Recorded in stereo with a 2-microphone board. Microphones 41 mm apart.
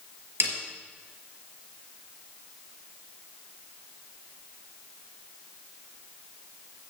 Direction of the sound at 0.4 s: 60° right (ahead or behind).